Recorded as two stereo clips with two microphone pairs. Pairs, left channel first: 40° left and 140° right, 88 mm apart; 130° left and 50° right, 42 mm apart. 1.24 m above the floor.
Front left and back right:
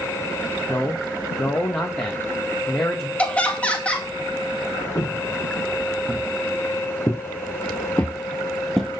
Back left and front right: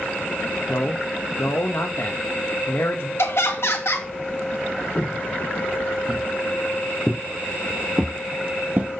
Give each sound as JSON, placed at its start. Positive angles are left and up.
{"t": 0.7, "sound": "a man speaking", "azimuth_deg": 105, "distance_m": 1.2}
{"t": 3.2, "sound": "laughter", "azimuth_deg": 115, "distance_m": 1.9}
{"t": 5.0, "sound": "footsteps", "azimuth_deg": 80, "distance_m": 2.5}